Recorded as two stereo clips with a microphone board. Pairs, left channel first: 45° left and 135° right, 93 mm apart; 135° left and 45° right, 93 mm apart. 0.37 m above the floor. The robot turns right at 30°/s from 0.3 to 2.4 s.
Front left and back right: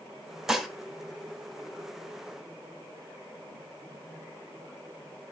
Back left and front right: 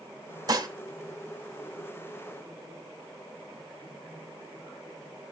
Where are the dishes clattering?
50° right, 0.9 m; by 0.7 s 45° right, 0.9 m.